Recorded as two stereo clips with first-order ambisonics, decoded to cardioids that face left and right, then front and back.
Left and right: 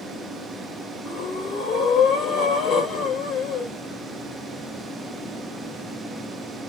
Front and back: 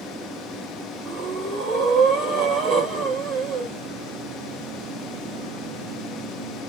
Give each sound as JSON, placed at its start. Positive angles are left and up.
{"t": 1.1, "sound": "breathing", "azimuth_deg": 140, "distance_m": 2.0}